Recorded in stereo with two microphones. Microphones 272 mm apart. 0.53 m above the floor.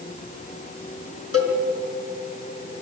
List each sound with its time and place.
1.3 s a cowbell: 60° left (ahead or behind), 4 m